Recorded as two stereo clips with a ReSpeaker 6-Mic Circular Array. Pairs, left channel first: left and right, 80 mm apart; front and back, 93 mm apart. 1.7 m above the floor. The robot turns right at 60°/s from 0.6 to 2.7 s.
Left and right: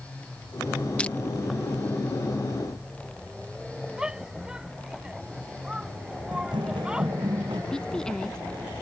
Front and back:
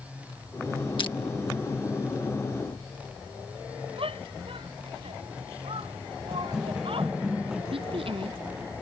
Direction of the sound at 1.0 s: 15° left.